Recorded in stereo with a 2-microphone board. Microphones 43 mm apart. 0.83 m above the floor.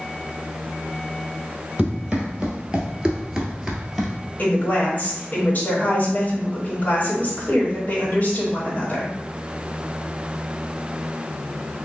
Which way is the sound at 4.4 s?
35° left (ahead or behind).